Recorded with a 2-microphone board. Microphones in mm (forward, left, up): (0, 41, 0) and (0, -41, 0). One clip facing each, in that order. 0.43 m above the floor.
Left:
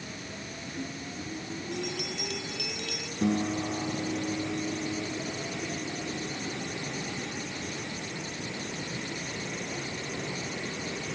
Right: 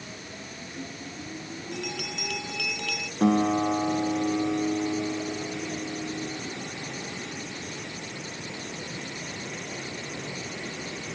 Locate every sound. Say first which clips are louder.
1.7 s a bell: right 1 dB; 80° right
3.2 s a guitar: right 6 dB; 60° right (ahead or behind)